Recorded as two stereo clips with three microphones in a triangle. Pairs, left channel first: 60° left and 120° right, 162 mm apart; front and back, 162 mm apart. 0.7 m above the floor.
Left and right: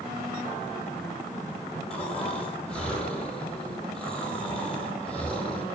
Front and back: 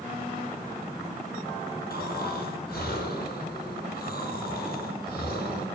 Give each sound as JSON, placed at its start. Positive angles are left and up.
{"t": 1.9, "sound": "snoring", "azimuth_deg": -25, "distance_m": 6.0}